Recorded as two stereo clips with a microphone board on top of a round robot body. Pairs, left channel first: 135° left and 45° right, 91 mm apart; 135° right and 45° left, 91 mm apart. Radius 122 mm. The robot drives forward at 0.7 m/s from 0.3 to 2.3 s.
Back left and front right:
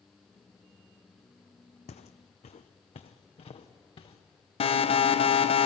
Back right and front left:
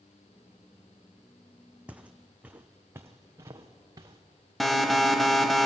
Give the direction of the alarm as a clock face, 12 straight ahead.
7 o'clock.